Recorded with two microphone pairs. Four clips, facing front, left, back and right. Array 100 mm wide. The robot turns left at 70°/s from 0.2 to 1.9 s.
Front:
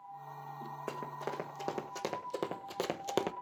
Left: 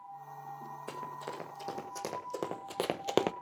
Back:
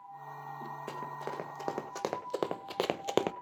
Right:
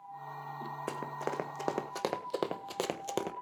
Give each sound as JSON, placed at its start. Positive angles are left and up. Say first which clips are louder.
{"t": 0.9, "sound": "running footsteps", "louder": "right 4 dB, front 1 dB", "azimuth_deg": -55, "distance_m": 2.0}